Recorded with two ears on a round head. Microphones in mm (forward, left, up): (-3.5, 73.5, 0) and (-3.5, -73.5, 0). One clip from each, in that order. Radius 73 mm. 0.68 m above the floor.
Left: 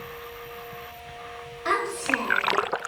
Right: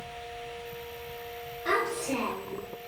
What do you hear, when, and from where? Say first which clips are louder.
1.6 s a child speaking: left 4 dB; 35° left (ahead or behind), 1.3 m; by 2.7 s 25° left (ahead or behind), 1.9 m